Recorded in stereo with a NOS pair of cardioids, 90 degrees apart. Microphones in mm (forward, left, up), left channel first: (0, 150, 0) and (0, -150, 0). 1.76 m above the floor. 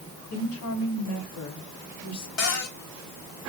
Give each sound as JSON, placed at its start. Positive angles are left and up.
{"t": 0.3, "sound": "a woman speaking", "azimuth_deg": 70, "distance_m": 4.0}
{"t": 2.4, "sound": "a cupboard door", "azimuth_deg": 60, "distance_m": 3.5}